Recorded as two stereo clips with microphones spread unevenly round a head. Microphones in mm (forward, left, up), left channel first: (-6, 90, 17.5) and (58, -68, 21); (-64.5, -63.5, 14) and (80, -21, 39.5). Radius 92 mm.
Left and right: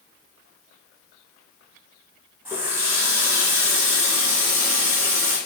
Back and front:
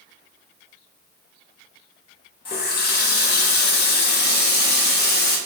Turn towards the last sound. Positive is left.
turn(degrees=-145)